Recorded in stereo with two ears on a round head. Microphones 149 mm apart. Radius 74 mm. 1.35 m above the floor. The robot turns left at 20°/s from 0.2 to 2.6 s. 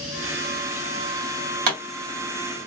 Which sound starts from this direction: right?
A pop, at 1.7 s.